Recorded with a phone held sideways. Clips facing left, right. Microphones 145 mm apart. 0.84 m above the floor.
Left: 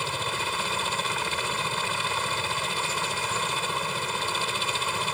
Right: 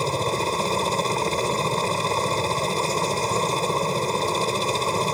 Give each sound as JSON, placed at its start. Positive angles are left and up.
{"t": 0.0, "sound": "a helicopter", "side_deg": -40}